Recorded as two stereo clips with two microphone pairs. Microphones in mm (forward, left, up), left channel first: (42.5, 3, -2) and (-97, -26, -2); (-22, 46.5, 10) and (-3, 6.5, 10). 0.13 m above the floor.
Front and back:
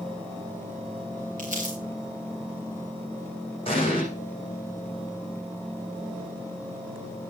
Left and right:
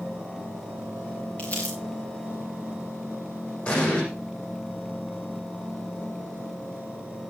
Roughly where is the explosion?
Ahead left.